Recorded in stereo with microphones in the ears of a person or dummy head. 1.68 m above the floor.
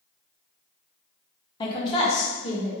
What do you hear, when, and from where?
1.6 s a woman speaking: 30° left (ahead or behind), 0.7 m; by 2.7 s 40° left (ahead or behind), 1.5 m